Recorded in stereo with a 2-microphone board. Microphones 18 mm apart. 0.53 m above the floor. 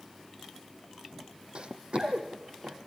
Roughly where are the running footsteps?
Right.